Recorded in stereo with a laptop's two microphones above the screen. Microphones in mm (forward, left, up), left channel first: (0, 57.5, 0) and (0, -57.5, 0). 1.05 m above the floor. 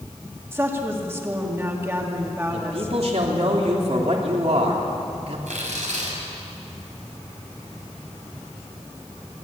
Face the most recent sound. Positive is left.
turn(degrees=-85)